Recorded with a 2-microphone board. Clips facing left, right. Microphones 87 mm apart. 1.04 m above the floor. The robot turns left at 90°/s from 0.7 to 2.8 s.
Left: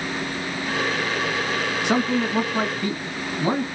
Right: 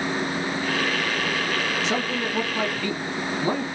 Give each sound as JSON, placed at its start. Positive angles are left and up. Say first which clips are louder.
{"t": 1.8, "sound": "a man speaking", "louder": "left 4 dB", "azimuth_deg": 120, "distance_m": 1.5}